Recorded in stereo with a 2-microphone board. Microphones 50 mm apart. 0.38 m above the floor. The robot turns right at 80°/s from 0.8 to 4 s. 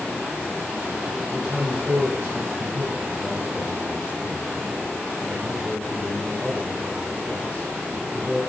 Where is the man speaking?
170° right, 1.1 m; by 8.4 s 45° left, 1.1 m.